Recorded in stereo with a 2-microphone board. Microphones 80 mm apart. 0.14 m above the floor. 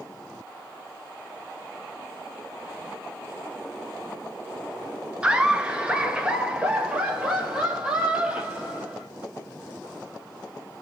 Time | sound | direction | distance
5.2 | laughter | 10° right (ahead or behind) | 1.5 m